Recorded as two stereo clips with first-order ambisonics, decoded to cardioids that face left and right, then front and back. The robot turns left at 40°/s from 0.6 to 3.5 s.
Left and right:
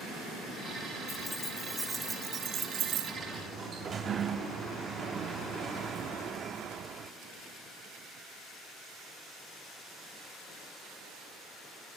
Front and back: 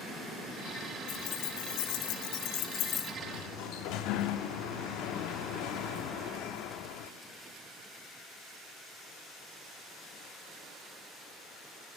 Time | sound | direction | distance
1.1 | keys jangling | 25° left | 3 m
3.2 | a sliding door | 15° right | 0.8 m